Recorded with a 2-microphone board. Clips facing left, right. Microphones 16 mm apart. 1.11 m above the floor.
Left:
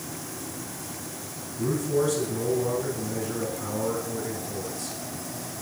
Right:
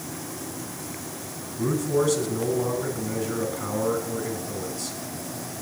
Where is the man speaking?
25° right (ahead or behind), 4.5 m.